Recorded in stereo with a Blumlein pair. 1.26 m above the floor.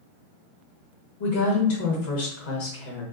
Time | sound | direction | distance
1.2 | a woman speaking | 50° left | 1.1 m